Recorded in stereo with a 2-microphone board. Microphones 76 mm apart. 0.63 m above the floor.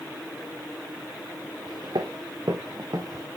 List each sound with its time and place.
1.7 s footsteps: 80° right, 2.5 m; by 3.2 s 45° right (ahead or behind), 2 m